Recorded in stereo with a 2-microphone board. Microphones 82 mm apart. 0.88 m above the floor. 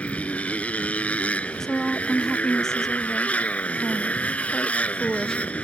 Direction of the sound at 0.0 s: 15° left (ahead or behind).